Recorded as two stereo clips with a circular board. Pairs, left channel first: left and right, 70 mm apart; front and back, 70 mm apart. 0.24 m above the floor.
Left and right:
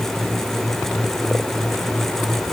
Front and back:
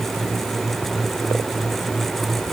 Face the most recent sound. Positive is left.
No sound to turn to.